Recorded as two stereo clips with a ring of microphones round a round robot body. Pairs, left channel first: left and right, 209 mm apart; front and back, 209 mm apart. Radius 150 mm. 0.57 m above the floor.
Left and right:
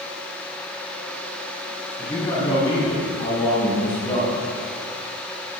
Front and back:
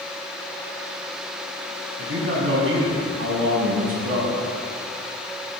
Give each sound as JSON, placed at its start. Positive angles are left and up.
{"t": 2.0, "sound": "a man speaking", "azimuth_deg": 165, "distance_m": 4.5}